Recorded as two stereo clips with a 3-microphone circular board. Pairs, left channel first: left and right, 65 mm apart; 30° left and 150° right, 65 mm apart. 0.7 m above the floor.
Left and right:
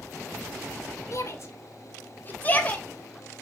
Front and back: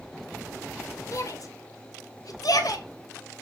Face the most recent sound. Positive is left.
turn(degrees=20)